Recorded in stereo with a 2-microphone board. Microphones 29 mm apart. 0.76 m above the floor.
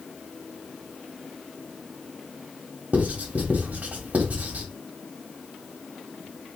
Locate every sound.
2.9 s writing: 55° right (ahead or behind), 1.3 m